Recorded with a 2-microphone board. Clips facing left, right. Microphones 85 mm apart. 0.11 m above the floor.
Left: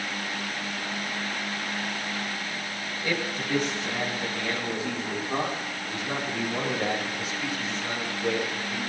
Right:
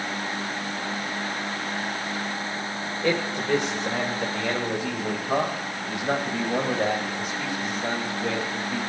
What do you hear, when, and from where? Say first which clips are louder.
3.0 s a man speaking: right 5 dB; 75° right (ahead or behind), 7.5 m; by 8.9 s 55° right (ahead or behind), 11.5 m